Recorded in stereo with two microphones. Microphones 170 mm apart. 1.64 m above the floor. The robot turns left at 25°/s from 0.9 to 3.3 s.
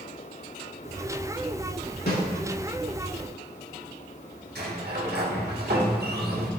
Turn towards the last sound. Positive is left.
turn(degrees=-75)  # may be behind; listen again after turning